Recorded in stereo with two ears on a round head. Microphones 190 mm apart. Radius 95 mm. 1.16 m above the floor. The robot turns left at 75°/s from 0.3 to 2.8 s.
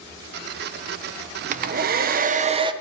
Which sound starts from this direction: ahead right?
A hair dryer, at 1.5 s.